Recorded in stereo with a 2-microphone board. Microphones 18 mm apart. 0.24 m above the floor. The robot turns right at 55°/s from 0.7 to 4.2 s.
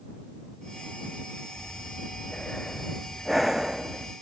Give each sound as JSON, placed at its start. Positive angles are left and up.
{"t": 1.6, "sound": "breathing", "azimuth_deg": 90}